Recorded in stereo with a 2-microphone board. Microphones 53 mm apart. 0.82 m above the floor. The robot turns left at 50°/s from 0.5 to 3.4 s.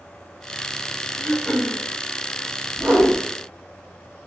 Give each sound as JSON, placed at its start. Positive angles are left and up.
{"t": 1.2, "sound": "throat clearing", "azimuth_deg": 45, "distance_m": 0.9}
{"t": 2.8, "sound": "a whoosh", "side_deg": -25, "distance_m": 1.7}